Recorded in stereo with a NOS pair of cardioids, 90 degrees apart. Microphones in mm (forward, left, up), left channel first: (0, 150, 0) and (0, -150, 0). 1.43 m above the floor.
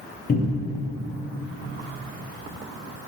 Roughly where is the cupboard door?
Ahead left.